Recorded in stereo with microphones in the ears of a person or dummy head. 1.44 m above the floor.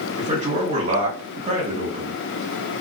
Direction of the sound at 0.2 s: 45° right (ahead or behind).